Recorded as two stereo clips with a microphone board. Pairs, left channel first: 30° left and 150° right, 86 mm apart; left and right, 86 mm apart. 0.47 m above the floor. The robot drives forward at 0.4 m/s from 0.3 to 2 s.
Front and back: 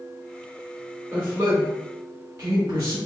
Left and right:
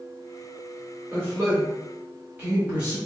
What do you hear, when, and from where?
1.1 s a man speaking: 130° right, 1.2 m; by 3.0 s 150° right, 1.4 m